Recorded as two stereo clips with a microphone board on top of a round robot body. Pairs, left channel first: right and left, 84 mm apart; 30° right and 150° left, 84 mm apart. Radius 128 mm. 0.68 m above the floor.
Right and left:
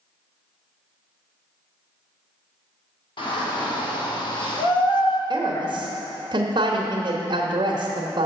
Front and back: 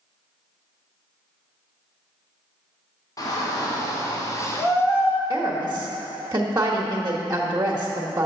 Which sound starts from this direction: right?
A shout, at 3.2 s.